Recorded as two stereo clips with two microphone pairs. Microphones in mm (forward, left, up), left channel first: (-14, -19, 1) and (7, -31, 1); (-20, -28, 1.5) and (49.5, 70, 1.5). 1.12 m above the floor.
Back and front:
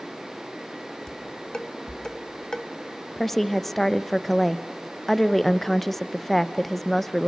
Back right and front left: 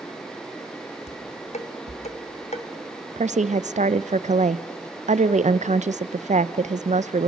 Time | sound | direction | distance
1.1 | dishes clattering | 150° right | 1.2 m
3.2 | a woman speaking | 65° left | 0.6 m